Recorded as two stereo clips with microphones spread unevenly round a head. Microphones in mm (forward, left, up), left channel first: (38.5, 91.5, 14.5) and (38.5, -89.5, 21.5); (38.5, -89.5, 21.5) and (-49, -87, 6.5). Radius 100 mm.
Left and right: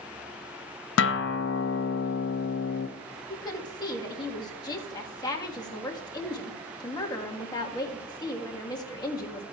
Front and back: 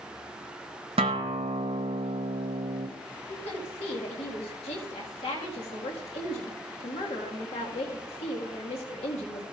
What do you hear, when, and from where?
1.0 s a guitar: 125° left, 0.6 m
3.3 s a woman speaking: 20° left, 1.7 m